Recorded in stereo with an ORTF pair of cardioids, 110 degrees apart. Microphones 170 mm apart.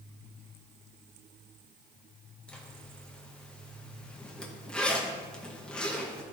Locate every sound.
2.5 s a zipper: 5° left, 1.2 m